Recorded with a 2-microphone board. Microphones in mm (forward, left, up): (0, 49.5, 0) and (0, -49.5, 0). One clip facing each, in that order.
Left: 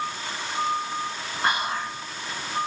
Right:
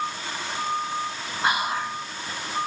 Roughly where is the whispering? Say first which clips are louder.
Right 1 dB; centre.